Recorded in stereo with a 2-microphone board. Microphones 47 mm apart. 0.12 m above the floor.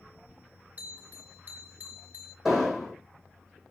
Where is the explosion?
5° right (ahead or behind), 1.9 m.